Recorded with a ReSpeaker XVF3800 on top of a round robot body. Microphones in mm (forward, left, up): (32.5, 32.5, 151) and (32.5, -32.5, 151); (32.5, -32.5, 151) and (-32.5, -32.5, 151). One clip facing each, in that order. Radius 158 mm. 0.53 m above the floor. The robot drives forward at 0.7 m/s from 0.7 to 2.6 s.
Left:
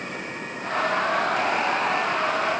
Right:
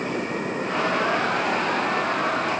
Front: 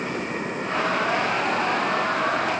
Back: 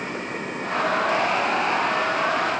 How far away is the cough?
I don't hear a cough.